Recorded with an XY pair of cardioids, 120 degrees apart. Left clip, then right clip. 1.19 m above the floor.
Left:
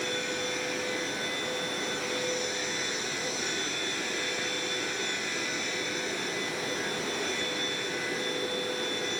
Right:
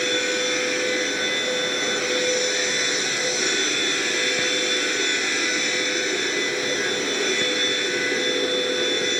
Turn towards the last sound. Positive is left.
turn(degrees=-50)